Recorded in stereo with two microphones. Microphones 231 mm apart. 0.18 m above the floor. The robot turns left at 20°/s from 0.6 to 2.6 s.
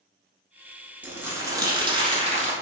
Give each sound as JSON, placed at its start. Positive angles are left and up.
{"t": 1.0, "sound": "crumpling", "side_deg": -5, "distance_m": 0.9}